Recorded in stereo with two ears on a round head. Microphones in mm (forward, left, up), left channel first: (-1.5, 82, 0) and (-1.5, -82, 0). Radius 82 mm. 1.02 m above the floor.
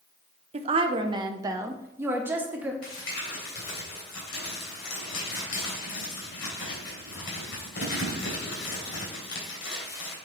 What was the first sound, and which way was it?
A woman speaking, 35° right (ahead or behind).